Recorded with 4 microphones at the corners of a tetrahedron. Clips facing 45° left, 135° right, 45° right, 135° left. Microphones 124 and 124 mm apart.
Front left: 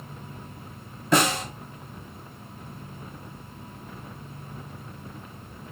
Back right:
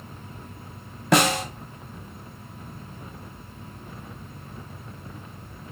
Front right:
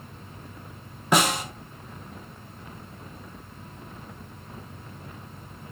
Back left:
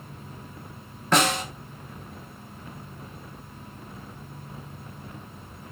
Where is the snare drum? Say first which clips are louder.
Back right 2 dB, even; 125° right, 0.6 m.